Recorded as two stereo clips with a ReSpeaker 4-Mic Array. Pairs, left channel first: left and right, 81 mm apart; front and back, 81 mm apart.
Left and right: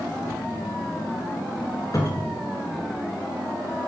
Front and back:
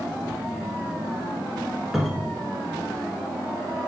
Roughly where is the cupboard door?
Left.